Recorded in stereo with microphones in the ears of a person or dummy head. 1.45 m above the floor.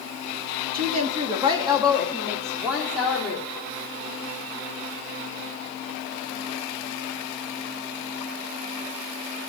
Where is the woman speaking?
50° right (ahead or behind), 0.6 m; by 3.5 s 5° right (ahead or behind), 2.0 m.